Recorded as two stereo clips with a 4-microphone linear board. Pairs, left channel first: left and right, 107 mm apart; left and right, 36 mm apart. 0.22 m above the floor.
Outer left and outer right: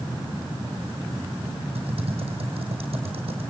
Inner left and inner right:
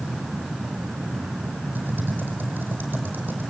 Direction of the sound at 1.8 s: 70° right (ahead or behind).